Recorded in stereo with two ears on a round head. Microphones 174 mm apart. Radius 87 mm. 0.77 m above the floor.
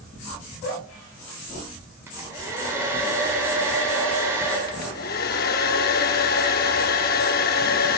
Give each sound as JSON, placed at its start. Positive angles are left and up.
{"t": 2.1, "sound": "a hair dryer", "side_deg": -15, "distance_m": 3.5}
{"t": 4.7, "sound": "a hair dryer", "side_deg": 50, "distance_m": 0.7}